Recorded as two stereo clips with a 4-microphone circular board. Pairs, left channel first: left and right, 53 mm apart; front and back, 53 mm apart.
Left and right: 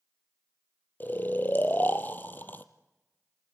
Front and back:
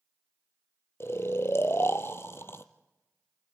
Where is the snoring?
35° left, 1.3 m.